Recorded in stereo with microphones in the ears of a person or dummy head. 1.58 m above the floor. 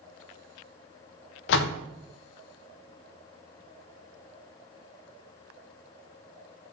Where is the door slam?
65° left (ahead or behind), 0.8 m.